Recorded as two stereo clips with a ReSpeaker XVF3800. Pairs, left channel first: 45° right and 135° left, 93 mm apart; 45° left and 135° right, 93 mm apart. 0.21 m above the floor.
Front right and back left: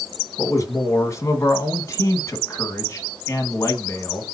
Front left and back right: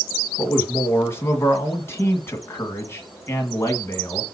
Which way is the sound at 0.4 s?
5° right.